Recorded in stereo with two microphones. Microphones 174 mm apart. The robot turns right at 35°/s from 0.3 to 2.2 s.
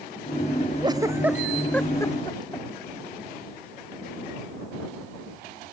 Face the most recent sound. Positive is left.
turn(degrees=25)  # may be behind; listen again after turning